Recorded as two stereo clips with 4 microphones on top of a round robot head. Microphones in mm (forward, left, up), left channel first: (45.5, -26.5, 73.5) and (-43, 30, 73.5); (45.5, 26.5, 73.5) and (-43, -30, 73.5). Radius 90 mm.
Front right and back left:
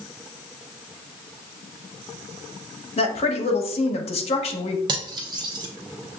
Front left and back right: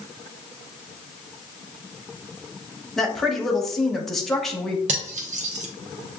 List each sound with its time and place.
3.0 s a woman speaking: 55° right, 0.9 m
4.9 s cutlery clinking: 160° right, 0.5 m